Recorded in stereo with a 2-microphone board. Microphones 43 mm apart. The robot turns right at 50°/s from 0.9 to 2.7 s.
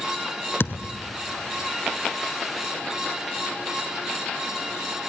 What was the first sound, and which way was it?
A thud, 80° left.